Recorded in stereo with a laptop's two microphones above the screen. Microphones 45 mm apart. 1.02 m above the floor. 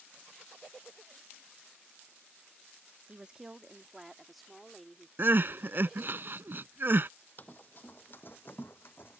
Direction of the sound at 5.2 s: 50° right (ahead or behind).